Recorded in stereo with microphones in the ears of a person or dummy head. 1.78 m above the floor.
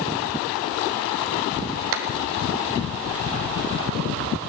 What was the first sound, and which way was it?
A clap, 60° right (ahead or behind).